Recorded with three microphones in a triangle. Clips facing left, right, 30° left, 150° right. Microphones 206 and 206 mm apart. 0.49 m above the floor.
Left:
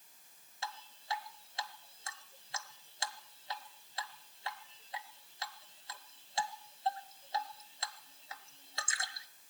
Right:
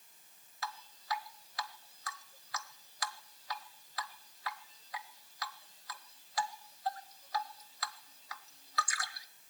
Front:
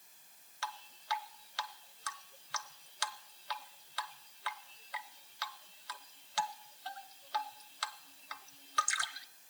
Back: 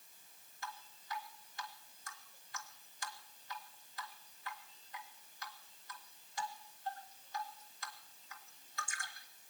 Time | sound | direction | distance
0.6 | dripping | 30° left | 0.7 m